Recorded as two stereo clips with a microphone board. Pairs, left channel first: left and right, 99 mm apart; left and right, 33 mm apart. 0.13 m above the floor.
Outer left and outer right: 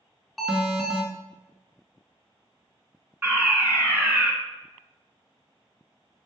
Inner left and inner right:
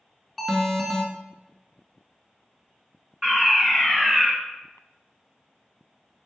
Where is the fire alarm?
15° right (ahead or behind), 2.5 m.